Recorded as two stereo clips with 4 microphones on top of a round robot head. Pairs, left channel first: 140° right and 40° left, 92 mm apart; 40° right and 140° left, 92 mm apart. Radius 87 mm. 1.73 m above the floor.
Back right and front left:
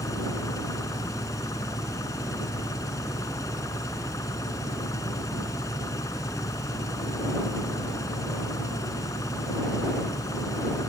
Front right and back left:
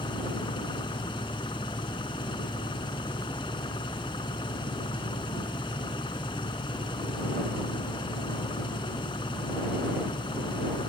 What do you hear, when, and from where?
0.0 s an engine running: 80° right